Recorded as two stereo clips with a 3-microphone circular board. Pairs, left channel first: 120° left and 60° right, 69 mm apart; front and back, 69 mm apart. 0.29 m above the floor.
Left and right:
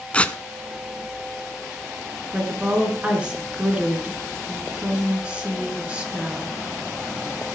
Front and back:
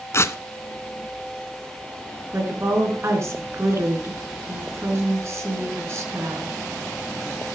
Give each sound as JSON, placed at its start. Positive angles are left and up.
{"t": 0.1, "sound": "tearing paper", "azimuth_deg": 45, "distance_m": 0.7}
{"t": 2.3, "sound": "a woman speaking", "azimuth_deg": -135, "distance_m": 4.0}